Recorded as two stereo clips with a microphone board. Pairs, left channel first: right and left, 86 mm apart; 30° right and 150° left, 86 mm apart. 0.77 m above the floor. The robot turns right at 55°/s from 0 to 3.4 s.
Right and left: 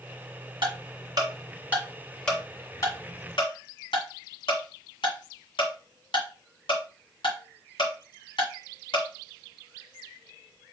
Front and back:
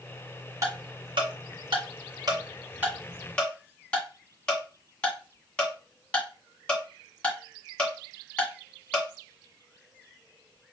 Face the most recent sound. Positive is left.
turn(degrees=-105)